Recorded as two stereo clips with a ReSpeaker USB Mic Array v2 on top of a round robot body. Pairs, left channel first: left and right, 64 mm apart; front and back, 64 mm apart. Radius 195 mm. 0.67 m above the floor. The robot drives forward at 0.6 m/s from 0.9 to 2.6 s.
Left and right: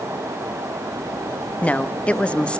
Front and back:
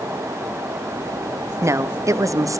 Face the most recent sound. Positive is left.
turn(degrees=160)